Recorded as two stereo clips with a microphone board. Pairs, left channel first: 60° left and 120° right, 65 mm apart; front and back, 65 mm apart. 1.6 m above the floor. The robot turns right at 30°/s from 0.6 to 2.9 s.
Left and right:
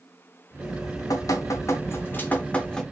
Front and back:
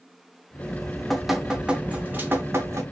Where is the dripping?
75° left, 0.6 m; by 2.8 s 140° left, 0.6 m.